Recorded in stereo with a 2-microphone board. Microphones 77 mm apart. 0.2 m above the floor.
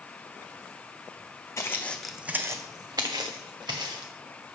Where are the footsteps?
35° left (ahead or behind), 0.6 m; by 4.1 s 80° right, 1.6 m.